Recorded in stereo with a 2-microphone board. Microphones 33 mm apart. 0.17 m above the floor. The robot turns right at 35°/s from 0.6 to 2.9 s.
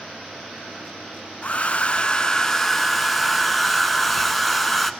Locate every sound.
1.4 s a hair dryer: 125° left, 0.5 m; by 4.9 s 175° left, 0.5 m